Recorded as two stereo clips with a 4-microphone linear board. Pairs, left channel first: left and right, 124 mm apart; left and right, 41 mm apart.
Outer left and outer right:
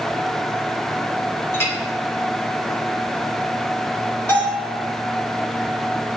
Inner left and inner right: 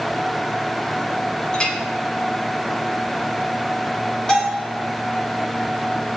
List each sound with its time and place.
1.5 s a clink: 20° left (ahead or behind), 0.7 m
4.3 s a bell: 15° left (ahead or behind), 1.7 m